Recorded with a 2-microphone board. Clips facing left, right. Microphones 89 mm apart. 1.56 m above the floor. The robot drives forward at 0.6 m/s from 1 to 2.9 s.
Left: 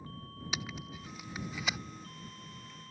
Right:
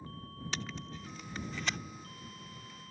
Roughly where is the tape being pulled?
Centre.